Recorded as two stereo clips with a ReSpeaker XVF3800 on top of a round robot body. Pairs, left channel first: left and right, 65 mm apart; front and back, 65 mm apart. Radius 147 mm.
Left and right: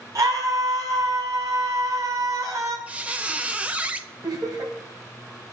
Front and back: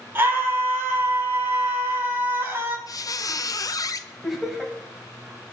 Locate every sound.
0.1 s a scream: 125° right, 5 m
2.9 s a squeak: 20° right, 1.0 m
4.2 s laughter: 90° right, 3.5 m